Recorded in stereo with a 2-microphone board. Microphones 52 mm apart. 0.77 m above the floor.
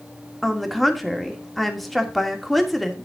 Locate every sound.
0.4 s a woman speaking: centre (ahead or behind), 2.5 m